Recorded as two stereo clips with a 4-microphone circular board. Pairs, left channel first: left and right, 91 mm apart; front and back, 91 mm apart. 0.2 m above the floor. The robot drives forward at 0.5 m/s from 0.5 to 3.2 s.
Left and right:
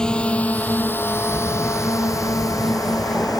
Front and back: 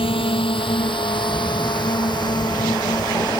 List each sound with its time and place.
0.0 s a drone: 10° left; by 3.4 s 45° left